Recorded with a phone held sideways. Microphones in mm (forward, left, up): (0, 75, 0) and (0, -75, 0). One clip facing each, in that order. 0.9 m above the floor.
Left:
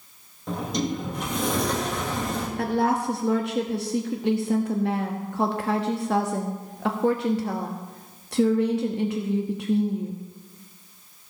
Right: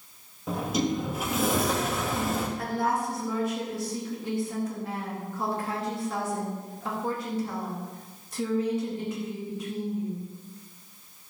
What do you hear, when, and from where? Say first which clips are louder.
0.5 s a sliding door: even; 5° right (ahead or behind), 1.6 m
2.6 s a woman speaking: left 5 dB; 70° left (ahead or behind), 1.0 m